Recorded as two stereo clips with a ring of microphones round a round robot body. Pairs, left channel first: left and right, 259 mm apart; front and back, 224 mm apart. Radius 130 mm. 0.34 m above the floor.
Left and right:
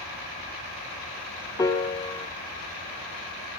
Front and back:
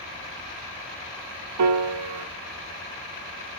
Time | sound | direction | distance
1.6 | a piano | 170° left | 0.7 m